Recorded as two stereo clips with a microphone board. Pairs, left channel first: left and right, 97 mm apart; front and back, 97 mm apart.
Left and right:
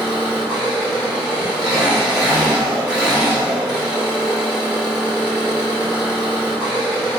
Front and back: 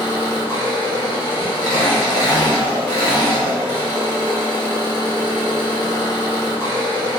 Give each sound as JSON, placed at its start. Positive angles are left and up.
{"t": 0.0, "sound": "an engine running", "azimuth_deg": -15, "distance_m": 1.6}